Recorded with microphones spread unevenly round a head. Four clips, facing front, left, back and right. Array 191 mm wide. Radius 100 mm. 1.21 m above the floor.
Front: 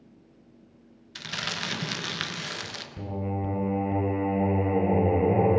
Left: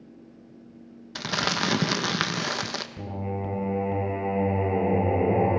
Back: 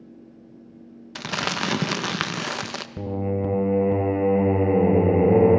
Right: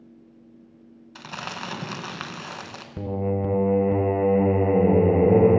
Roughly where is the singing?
Behind right.